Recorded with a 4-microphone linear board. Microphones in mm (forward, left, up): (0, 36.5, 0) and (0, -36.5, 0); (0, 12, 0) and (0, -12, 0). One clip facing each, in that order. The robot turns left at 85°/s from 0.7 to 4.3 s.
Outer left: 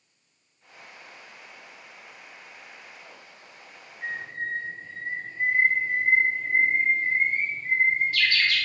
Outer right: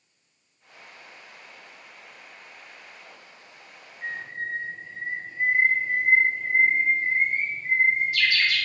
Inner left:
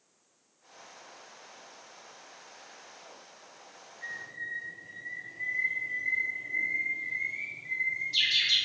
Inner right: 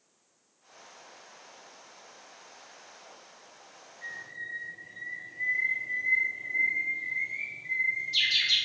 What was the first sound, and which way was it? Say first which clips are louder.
A bird: even, inner left 1 dB; 5° left (ahead or behind).